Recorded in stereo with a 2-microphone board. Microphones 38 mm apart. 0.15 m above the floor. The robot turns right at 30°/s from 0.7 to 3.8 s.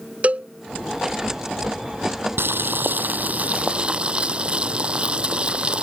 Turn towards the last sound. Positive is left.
turn(degrees=-25)